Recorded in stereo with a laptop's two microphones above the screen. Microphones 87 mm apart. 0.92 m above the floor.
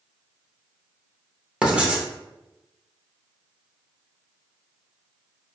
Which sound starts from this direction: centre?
Writing, at 1.6 s.